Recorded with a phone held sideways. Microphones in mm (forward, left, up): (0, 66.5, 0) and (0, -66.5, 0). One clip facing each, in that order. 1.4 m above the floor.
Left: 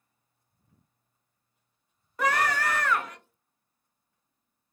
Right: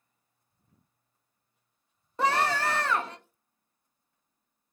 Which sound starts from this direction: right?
A scream, at 2.2 s.